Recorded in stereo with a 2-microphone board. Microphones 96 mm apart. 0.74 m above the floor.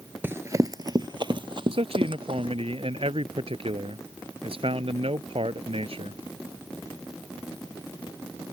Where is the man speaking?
70° right (ahead or behind).